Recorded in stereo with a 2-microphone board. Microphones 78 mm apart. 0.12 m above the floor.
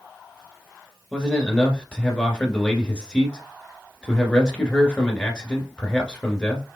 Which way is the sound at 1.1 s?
10° left (ahead or behind).